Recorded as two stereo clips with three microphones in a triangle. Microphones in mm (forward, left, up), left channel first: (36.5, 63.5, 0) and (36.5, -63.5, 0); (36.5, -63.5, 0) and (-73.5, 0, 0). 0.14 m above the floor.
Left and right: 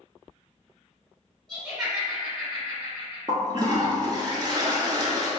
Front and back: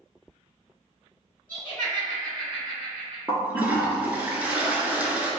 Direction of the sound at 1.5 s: 10° left.